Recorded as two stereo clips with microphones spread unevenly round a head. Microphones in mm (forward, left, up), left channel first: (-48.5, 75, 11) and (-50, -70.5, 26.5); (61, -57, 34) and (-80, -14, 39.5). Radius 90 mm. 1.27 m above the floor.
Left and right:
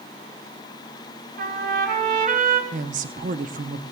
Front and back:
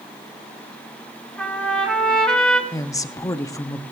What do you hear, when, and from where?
1.4 s a trumpet: 100° right, 2.5 m
2.7 s a woman speaking: 80° right, 0.7 m